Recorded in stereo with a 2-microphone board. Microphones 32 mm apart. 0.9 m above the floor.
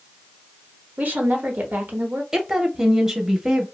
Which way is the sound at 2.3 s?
15° right (ahead or behind).